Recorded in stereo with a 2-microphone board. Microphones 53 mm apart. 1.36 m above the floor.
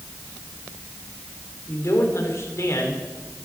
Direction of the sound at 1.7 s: 60° left (ahead or behind).